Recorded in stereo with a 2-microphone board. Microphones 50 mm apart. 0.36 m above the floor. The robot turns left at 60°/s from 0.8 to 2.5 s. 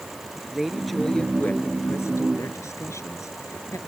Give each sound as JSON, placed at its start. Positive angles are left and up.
{"t": 0.5, "sound": "a woman speaking", "azimuth_deg": -175}